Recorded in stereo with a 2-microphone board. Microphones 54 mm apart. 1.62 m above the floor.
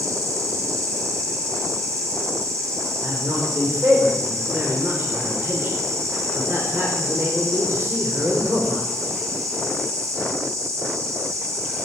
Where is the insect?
70° right (ahead or behind), 8.5 m.